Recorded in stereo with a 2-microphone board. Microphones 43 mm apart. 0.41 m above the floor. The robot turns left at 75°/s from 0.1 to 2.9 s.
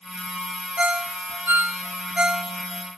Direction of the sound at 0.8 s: 25° right (ahead or behind).